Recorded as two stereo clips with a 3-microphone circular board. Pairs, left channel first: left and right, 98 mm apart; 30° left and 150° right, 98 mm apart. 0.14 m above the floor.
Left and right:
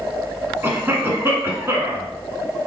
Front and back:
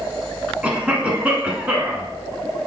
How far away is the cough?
About 1.1 m.